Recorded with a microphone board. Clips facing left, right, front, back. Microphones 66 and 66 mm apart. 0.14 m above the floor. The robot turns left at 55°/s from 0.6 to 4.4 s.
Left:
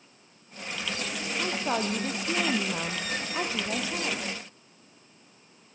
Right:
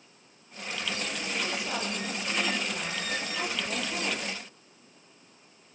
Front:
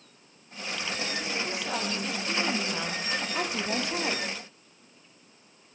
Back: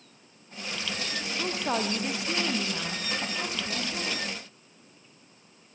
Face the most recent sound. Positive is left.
turn(degrees=-15)